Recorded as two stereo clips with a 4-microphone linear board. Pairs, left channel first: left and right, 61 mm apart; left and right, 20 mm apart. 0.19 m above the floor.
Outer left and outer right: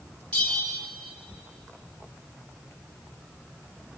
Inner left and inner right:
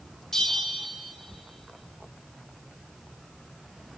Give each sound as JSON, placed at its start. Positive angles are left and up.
{"t": 0.3, "sound": "a bell", "side_deg": 25, "distance_m": 0.8}